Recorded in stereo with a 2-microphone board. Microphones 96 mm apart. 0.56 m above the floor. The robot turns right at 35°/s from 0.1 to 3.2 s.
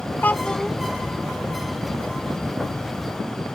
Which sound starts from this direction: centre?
A child speaking, at 0.2 s.